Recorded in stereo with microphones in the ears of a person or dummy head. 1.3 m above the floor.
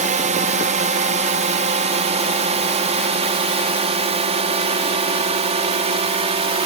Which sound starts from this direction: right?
A drone, at 0.0 s.